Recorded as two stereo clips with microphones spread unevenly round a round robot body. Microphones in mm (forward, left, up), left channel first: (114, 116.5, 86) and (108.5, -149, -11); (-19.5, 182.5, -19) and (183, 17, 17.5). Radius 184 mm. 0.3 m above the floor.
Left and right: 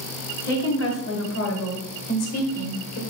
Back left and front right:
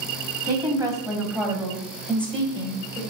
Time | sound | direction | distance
0.4 | a woman speaking | 35° left | 2.5 m